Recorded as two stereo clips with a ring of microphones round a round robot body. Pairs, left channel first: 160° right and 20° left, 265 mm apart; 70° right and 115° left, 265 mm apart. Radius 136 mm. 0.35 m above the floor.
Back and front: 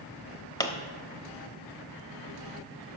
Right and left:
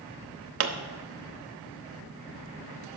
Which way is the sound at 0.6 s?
130° left.